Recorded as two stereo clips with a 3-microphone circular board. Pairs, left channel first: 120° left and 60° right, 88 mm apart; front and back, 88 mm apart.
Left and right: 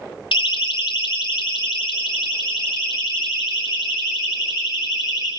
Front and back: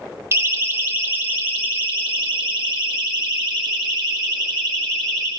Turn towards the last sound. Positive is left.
turn(degrees=95)